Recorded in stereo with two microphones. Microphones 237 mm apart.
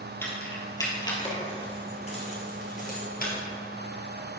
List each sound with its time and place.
0.2 s keys jangling: 10° left (ahead or behind), 2.5 m; by 3.3 s 45° left (ahead or behind), 2.5 m